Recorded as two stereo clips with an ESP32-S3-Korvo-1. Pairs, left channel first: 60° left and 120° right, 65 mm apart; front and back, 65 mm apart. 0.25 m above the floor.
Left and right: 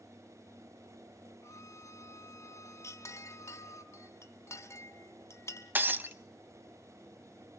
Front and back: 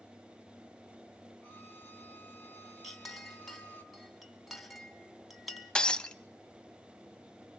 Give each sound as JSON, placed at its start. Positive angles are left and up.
{"t": 1.4, "sound": "a violin", "azimuth_deg": 55, "distance_m": 1.2}
{"t": 2.8, "sound": "a clink", "azimuth_deg": 90, "distance_m": 1.5}
{"t": 5.8, "sound": "breaking glass", "azimuth_deg": -70, "distance_m": 0.6}